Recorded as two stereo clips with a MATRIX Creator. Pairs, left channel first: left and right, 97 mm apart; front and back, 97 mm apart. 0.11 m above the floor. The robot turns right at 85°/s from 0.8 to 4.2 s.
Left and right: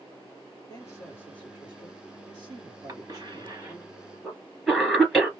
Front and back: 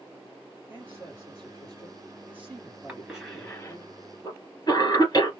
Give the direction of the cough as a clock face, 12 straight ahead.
4 o'clock.